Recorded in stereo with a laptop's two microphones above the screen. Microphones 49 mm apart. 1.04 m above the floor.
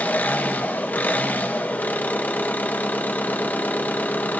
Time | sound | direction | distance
0.0 | an engine running | 40° left (ahead or behind) | 0.9 m